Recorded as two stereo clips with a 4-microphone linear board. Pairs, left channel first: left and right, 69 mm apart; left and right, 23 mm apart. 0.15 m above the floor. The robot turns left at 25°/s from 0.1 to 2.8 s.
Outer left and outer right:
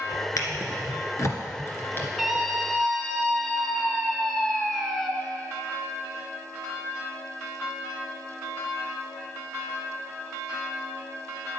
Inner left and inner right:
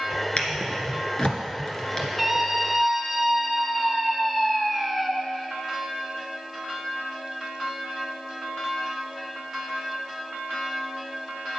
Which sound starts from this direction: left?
A drawer, at 0.4 s.